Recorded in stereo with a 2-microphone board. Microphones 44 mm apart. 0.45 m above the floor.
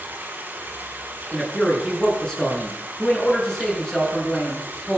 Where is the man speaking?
10° left (ahead or behind), 7 m.